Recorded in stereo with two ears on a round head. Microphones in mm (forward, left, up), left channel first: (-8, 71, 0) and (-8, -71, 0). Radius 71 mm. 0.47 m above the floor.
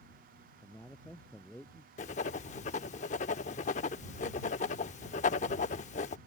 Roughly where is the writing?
Left.